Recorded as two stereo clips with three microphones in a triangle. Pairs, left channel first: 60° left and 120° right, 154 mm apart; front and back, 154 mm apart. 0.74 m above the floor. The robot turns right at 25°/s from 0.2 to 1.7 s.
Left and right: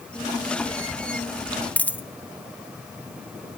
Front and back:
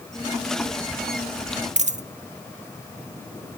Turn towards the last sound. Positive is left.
turn(degrees=140)